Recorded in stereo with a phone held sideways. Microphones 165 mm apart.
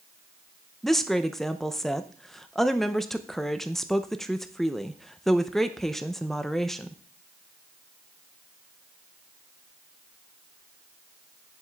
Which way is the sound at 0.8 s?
Centre (ahead or behind).